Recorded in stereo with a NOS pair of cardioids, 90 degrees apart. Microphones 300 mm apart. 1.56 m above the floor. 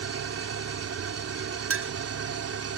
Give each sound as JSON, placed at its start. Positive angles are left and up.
{"t": 0.0, "sound": "an engine running", "azimuth_deg": -50}
{"t": 1.7, "sound": "a clink", "azimuth_deg": -45}